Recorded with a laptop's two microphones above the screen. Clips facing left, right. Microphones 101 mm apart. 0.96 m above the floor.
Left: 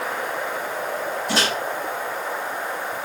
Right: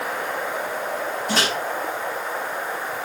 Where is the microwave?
Centre (ahead or behind), 2.5 m.